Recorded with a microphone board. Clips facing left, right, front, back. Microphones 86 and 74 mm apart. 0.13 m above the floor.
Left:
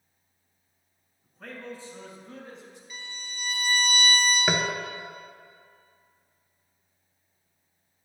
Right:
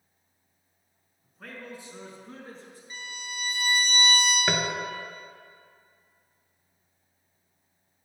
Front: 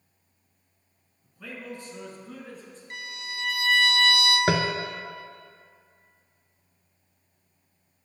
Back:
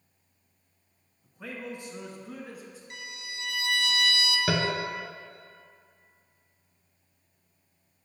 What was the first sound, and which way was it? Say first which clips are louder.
A man speaking: left 2 dB, back 1 dB; 175° left.